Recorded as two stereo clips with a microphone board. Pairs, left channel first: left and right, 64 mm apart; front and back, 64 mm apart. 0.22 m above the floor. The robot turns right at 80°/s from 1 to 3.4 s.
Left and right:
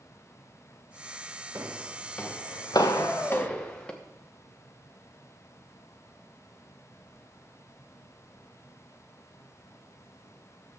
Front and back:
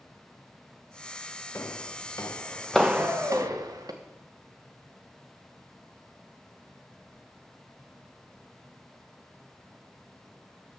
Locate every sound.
1.6 s footsteps: 50° right, 1.3 m; by 3.9 s 165° left, 1.6 m
2.9 s a shout: 25° right, 4.5 m; by 3.6 s 10° left, 4.5 m